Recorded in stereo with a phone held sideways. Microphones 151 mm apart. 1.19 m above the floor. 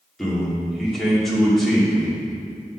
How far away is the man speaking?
About 2.5 m.